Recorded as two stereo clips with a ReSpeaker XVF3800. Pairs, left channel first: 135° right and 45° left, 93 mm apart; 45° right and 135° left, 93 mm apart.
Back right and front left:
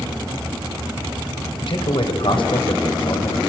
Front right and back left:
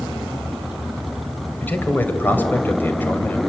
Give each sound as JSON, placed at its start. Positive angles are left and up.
{"t": 1.6, "sound": "a man speaking", "azimuth_deg": -115, "distance_m": 3.0}